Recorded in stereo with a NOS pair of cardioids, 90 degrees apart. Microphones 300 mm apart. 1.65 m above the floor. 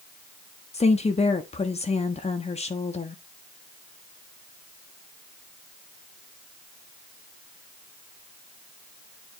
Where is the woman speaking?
20° left, 1.0 m.